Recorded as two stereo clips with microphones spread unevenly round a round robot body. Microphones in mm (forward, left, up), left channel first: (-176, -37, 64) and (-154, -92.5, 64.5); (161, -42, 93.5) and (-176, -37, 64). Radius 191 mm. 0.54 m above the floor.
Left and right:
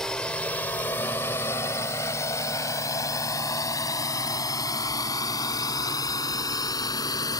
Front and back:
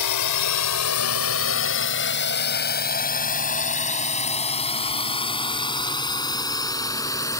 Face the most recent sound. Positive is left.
turn(degrees=80)